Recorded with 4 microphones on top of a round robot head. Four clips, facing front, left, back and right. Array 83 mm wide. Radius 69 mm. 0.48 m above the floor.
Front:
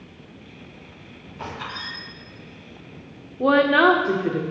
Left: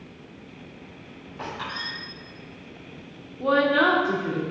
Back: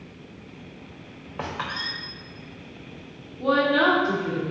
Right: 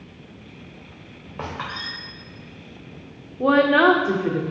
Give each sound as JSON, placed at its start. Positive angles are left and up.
{"t": 1.4, "sound": "a squeak", "azimuth_deg": -140, "distance_m": 3.5}
{"t": 3.4, "sound": "a woman speaking", "azimuth_deg": -40, "distance_m": 1.3}